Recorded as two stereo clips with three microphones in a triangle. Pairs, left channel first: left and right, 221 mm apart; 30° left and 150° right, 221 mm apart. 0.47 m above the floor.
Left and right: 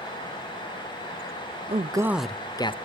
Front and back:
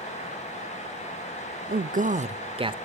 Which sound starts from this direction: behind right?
A man speaking, at 1.7 s.